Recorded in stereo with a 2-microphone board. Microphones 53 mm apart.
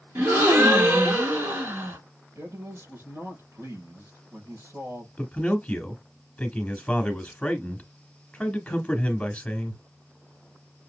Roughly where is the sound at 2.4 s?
Right.